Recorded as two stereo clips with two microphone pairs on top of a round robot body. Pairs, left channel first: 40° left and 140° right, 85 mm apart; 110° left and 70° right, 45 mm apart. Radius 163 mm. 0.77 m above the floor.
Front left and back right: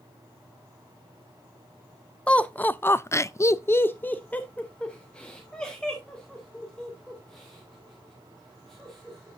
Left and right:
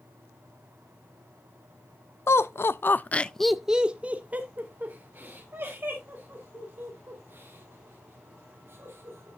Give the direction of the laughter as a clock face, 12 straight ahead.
8 o'clock.